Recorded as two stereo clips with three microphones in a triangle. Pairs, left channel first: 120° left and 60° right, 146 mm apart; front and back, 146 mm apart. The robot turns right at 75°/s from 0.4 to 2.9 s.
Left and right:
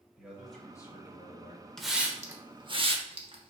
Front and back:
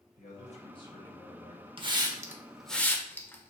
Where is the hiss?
155° right, 0.7 m; by 3.5 s 70° right, 0.7 m.